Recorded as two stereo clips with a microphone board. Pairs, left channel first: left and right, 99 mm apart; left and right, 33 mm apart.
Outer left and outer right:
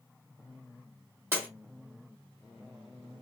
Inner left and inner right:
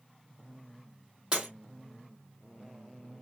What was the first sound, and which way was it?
Breaking glass, 25° right (ahead or behind).